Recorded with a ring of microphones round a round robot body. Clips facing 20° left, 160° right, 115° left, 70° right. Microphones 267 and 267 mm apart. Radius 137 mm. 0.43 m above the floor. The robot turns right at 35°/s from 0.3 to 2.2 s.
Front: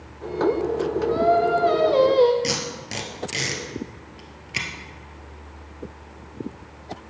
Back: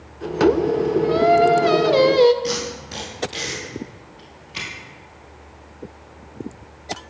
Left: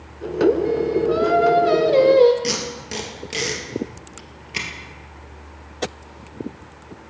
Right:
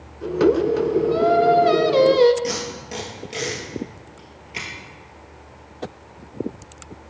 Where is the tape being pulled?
45° left, 1.8 m.